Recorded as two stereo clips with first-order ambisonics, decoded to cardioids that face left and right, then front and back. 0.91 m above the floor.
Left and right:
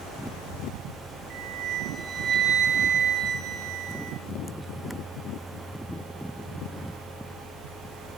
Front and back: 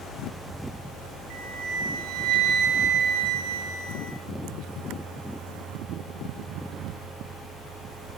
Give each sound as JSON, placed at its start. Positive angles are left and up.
{"t": 1.3, "sound": "a flute", "azimuth_deg": -145, "distance_m": 4.0}